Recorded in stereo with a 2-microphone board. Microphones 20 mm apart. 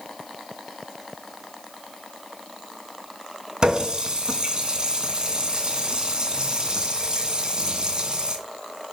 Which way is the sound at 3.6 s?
35° right (ahead or behind).